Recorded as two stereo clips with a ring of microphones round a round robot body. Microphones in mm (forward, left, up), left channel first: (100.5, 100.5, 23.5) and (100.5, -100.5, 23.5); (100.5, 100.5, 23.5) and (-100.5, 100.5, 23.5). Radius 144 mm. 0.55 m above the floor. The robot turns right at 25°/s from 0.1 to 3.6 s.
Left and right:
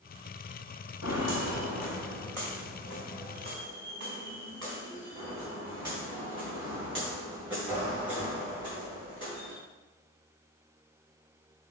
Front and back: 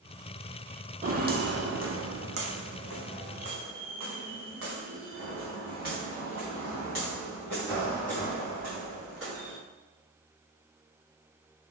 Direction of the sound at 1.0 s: 130° left.